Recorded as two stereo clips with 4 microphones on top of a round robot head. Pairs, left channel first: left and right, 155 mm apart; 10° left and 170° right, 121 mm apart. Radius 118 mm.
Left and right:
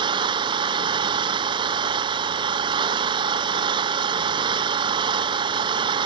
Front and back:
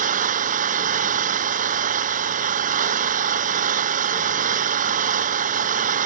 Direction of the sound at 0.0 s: 155° right.